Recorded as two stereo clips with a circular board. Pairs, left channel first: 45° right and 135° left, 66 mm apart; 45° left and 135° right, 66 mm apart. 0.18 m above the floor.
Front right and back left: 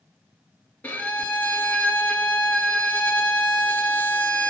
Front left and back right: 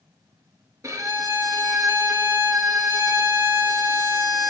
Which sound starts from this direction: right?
A violin, at 0.8 s.